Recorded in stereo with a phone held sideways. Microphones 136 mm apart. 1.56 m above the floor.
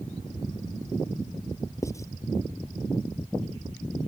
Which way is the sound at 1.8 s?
20° left (ahead or behind).